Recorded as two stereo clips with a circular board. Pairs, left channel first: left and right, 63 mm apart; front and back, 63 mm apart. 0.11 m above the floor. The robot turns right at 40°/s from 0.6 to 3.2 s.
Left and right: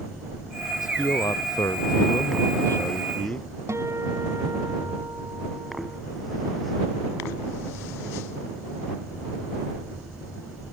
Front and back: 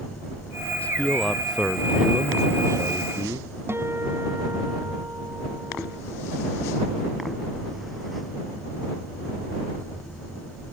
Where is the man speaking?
65° left; by 3.5 s 160° left.